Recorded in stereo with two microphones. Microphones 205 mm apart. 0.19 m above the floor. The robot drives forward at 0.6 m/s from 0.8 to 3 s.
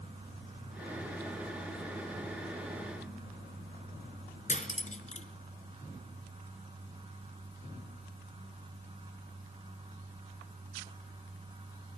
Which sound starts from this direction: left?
Cutlery clinking, at 4.5 s.